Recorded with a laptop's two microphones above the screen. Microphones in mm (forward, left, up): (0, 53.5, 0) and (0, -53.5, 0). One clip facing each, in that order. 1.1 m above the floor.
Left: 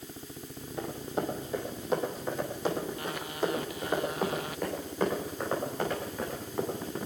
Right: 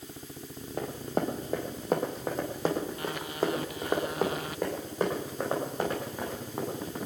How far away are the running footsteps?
About 2.5 m.